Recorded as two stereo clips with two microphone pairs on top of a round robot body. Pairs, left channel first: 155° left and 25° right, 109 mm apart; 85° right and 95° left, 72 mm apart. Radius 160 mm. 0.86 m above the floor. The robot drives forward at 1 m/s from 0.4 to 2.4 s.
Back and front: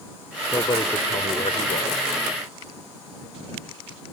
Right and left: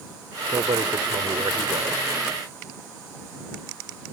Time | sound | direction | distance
0.5 | a man speaking | 95° left | ?